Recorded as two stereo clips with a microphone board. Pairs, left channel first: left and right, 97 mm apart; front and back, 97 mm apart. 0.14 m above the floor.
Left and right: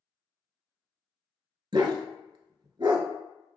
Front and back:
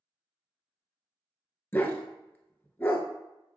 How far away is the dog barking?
About 0.6 m.